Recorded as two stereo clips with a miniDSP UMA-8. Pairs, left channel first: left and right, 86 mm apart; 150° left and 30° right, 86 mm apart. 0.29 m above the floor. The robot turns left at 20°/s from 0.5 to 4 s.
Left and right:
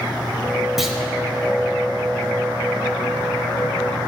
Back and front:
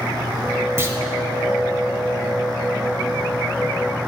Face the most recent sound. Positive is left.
turn(degrees=-70)